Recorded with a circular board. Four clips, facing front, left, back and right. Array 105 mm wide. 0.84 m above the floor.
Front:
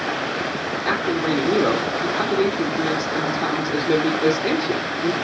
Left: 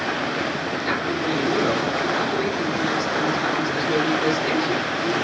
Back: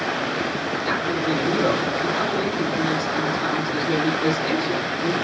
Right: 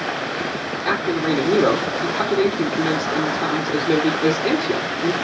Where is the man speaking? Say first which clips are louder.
Right 6 dB, front 3 dB; 55° right, 1.5 m.